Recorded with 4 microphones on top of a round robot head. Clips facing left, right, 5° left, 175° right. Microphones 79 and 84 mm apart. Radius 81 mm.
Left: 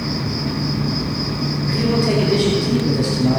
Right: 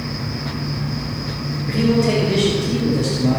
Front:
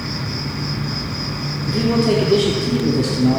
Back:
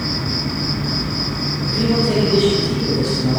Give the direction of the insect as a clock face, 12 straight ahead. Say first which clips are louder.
Left 4 dB, back 3 dB; 8 o'clock.